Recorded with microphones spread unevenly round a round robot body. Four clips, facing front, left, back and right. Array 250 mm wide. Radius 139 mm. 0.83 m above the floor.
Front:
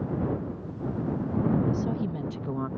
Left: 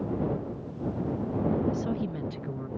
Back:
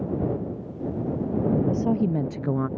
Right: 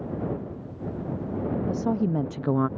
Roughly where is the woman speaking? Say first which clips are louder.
Right 4 dB, back 6 dB; behind right.